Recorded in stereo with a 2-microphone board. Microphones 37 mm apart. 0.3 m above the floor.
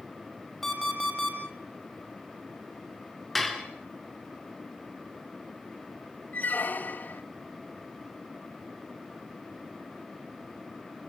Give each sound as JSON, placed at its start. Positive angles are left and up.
{"t": 0.6, "sound": "an alarm clock", "side_deg": 5, "distance_m": 6.5}
{"t": 3.4, "sound": "dishes clattering", "side_deg": 0, "distance_m": 3.0}
{"t": 6.3, "sound": "a squeak", "side_deg": 45, "distance_m": 1.5}